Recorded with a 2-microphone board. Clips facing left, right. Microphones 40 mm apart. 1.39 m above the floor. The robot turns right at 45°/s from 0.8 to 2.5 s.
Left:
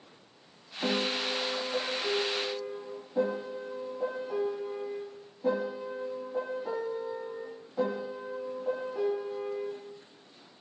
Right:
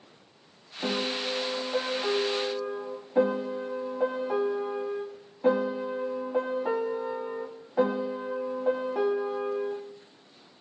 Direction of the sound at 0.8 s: 170° left.